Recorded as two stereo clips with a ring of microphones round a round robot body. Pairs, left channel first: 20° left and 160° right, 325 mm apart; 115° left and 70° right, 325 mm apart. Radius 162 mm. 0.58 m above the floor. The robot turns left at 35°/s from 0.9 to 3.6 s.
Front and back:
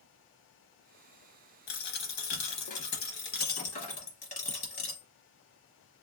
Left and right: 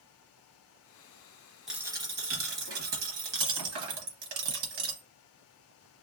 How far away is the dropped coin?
About 0.9 m.